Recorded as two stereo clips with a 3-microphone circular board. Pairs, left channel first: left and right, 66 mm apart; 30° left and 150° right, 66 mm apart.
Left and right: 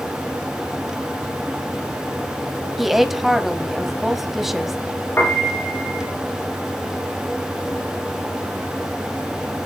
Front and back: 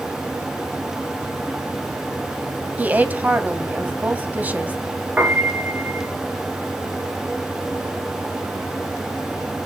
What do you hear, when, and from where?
2.8 s a woman speaking: 170° right, 1.4 m
5.2 s a piano: 145° left, 4 m